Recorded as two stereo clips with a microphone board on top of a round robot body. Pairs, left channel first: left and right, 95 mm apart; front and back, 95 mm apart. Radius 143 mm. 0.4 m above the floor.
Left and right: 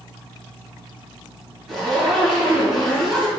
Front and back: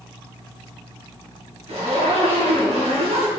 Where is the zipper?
Straight behind, 3 m.